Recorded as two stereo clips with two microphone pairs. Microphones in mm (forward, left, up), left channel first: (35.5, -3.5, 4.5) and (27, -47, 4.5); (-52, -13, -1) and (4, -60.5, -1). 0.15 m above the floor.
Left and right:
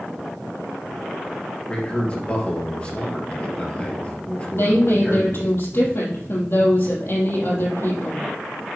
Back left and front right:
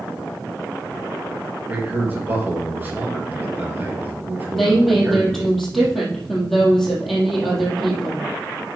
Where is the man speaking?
20° left, 3.5 m.